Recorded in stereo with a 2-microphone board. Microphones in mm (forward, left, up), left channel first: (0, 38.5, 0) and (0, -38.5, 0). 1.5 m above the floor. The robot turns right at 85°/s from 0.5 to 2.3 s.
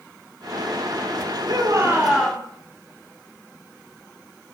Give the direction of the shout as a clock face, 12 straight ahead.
2 o'clock.